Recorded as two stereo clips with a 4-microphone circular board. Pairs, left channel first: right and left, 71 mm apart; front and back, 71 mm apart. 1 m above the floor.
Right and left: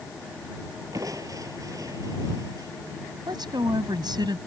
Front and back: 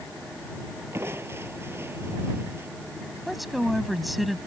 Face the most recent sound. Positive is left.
turn(degrees=90)